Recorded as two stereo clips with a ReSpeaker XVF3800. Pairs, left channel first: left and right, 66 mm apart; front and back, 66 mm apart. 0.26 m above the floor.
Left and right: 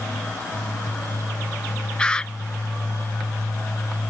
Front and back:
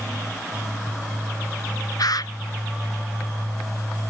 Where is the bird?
15° left.